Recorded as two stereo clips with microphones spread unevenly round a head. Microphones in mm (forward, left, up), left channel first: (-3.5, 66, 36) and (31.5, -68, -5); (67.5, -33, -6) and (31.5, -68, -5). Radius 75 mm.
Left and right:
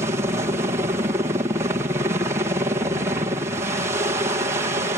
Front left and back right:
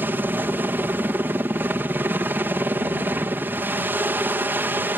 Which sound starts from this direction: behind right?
A helicopter, at 0.0 s.